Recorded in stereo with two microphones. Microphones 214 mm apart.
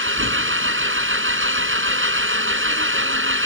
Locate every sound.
0.0 s an engine running: 70° right (ahead or behind)